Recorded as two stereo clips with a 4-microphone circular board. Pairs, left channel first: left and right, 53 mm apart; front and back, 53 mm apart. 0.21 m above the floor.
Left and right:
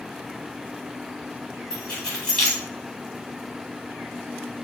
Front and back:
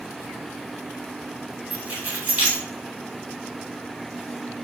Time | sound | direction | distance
1.7 | keys jangling | 165° left | 1.1 m